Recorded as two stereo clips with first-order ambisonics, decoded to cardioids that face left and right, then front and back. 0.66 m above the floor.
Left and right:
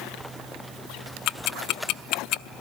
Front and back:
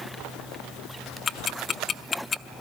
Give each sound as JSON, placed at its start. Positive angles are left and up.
{"t": 1.3, "sound": "ticking", "azimuth_deg": 65, "distance_m": 0.7}